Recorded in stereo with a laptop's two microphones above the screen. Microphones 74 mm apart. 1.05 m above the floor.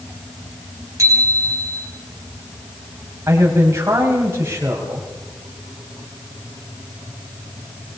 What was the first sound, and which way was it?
A bicycle bell, 45° right (ahead or behind).